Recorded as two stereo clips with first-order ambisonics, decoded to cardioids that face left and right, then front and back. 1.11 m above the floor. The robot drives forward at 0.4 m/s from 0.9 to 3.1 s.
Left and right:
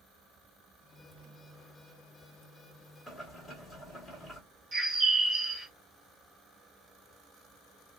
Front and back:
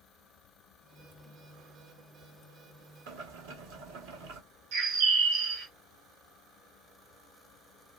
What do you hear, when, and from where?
3.1 s boiling: 170° left, 1.2 m; by 4.4 s 175° left, 1.2 m
4.7 s a bird: 155° right, 1.1 m